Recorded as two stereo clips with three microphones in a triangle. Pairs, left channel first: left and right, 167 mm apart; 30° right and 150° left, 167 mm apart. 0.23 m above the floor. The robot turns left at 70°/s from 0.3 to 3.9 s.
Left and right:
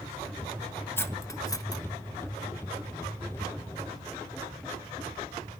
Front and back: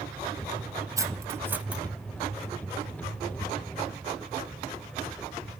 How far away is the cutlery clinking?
About 0.5 m.